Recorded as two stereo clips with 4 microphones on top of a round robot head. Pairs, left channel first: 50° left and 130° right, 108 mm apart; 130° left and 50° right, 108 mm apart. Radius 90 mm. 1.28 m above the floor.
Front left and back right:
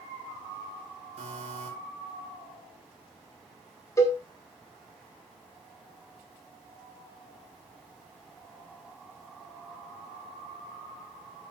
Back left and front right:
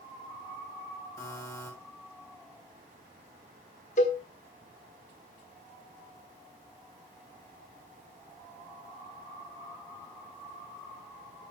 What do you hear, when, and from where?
1.2 s a buzzer: 165° right, 4 m
4.0 s a cowbell: 110° left, 1.5 m